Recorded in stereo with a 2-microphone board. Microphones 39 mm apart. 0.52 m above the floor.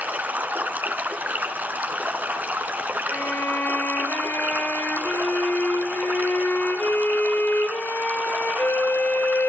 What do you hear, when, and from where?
0.0 s running water: 50° right (ahead or behind), 3.5 m
3.1 s a violin: 70° left (ahead or behind), 6 m